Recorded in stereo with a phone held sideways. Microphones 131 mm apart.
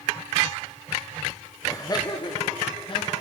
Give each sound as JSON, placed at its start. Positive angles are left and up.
{"t": 1.6, "sound": "laughter", "side_deg": 25, "distance_m": 1.2}